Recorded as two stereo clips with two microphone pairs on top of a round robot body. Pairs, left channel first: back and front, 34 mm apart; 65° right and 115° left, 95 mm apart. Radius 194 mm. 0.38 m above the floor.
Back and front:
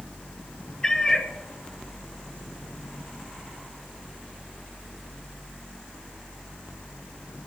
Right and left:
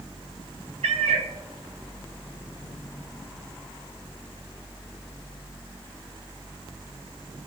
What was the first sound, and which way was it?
A cat meowing, 110° left.